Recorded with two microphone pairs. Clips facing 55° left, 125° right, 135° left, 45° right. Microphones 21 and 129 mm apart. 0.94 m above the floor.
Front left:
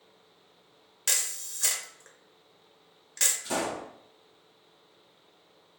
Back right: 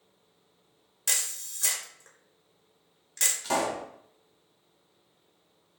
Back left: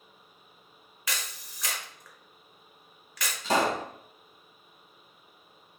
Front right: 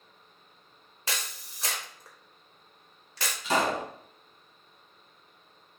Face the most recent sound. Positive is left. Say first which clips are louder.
# back right 3 dB, back left 1 dB
turn(degrees=-175)